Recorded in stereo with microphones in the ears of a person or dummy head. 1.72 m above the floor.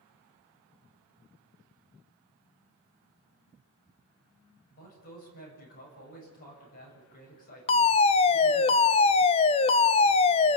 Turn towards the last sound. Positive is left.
turn(degrees=30)  # may be behind; listen again after turning